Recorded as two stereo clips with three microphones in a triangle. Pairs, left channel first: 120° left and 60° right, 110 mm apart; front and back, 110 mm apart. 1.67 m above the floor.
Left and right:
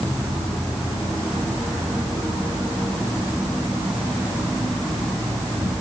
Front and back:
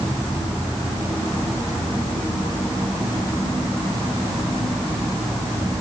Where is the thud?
No thud in this recording.